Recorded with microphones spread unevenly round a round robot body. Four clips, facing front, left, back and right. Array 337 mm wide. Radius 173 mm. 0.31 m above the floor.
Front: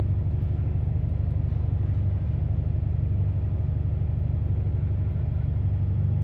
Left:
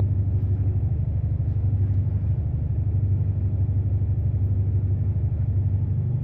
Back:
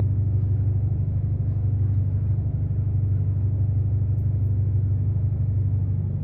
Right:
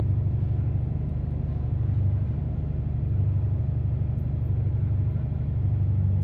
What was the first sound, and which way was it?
An engine running, 120° left.